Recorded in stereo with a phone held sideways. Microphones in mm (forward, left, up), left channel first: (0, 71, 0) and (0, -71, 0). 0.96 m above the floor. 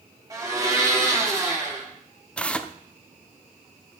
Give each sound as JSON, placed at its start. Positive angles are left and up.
{"t": 0.3, "sound": "a blender", "side_deg": -25, "distance_m": 6.0}
{"t": 2.4, "sound": "tearing paper", "side_deg": 10, "distance_m": 0.8}